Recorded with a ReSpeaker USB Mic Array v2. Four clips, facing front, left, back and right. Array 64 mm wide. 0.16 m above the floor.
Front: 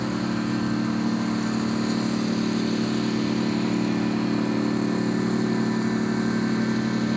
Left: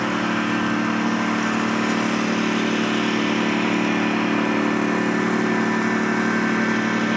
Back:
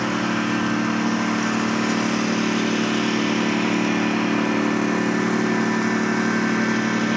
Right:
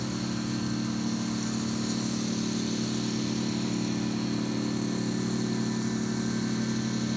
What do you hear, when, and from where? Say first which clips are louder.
0.0 s a lawn mower: left 11 dB, back 4 dB; 120° left